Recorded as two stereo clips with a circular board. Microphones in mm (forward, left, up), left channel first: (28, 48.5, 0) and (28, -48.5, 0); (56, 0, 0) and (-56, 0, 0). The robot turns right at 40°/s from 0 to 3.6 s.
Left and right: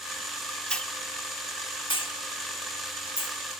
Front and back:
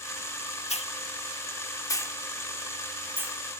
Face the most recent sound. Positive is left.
turn(degrees=125)